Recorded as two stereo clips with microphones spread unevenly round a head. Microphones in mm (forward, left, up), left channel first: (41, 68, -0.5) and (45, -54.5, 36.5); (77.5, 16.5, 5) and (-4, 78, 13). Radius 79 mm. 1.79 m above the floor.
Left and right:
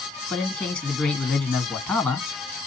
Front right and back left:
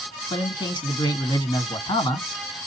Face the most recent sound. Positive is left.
turn(degrees=10)